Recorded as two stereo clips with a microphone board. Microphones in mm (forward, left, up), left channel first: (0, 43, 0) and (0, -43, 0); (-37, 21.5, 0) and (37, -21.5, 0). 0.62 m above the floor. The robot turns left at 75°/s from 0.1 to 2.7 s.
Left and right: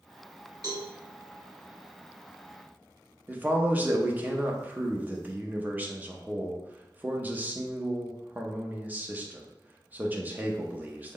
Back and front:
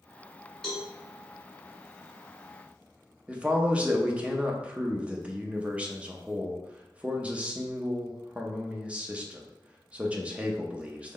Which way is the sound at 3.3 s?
75° right.